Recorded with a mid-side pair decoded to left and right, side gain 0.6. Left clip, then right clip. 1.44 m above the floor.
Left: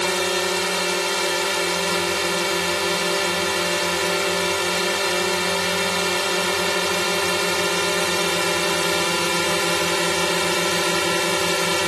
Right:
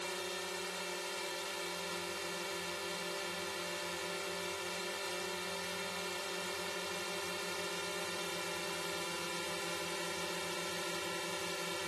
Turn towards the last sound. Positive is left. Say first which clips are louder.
# left 19 dB
turn(degrees=70)